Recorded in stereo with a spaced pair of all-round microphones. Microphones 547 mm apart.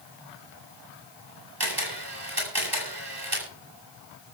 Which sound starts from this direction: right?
A camera shutter, at 1.6 s.